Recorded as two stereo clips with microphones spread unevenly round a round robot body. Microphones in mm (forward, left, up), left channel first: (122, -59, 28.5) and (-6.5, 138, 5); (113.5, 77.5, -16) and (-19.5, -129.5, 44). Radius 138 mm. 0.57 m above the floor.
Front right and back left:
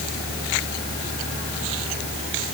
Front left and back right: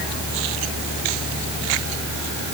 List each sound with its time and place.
Only background noise.